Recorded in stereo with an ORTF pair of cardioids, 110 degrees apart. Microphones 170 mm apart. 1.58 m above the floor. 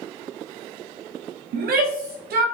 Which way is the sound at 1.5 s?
65° right.